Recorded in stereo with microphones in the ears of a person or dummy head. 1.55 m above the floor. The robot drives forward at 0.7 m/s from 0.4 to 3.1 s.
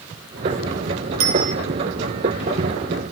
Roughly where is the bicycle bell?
Right.